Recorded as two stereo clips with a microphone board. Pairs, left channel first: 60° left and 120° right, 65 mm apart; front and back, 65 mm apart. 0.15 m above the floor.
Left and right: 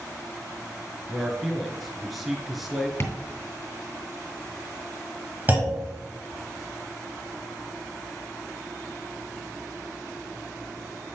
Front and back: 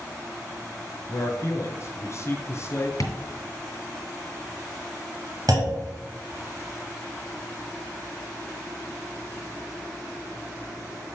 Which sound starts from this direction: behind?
A clunk, at 5.5 s.